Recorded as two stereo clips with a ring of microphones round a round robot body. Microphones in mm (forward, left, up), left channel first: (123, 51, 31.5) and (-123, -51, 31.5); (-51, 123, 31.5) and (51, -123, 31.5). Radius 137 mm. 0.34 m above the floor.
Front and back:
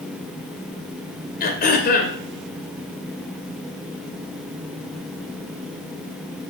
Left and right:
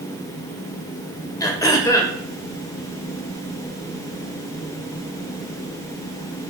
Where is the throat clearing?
45° left, 1.7 m.